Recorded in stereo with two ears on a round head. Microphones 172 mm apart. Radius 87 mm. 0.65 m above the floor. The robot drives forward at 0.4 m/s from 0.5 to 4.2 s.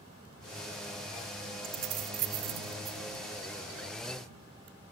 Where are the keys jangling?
70° right (ahead or behind); by 3.0 s 55° right (ahead or behind).